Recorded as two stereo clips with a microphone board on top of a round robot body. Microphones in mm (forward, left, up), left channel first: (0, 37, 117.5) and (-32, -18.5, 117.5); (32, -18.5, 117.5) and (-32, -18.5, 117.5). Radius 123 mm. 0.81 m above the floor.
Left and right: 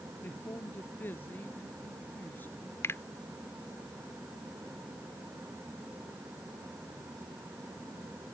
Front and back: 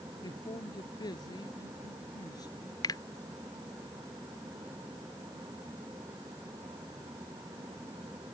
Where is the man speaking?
Straight ahead; by 2.7 s 5° right.